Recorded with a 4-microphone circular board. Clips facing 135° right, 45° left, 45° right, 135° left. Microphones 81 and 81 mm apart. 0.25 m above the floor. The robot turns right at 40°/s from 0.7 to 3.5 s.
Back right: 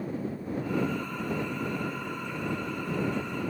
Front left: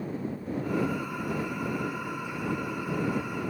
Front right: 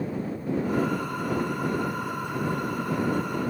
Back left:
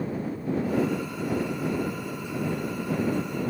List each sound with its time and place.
Only background noise.